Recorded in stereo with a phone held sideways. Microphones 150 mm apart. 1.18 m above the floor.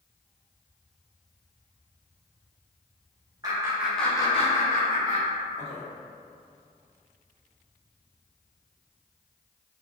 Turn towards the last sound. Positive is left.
turn(degrees=70)  # may be behind; listen again after turning